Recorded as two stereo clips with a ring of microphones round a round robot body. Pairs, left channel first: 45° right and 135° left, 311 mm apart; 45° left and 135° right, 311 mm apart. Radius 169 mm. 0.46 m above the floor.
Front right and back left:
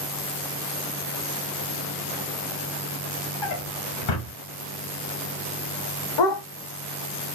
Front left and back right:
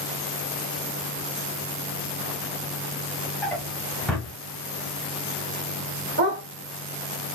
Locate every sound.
3.4 s a drawer: 45° right, 0.8 m
6.2 s a dog barking: 75° right, 0.8 m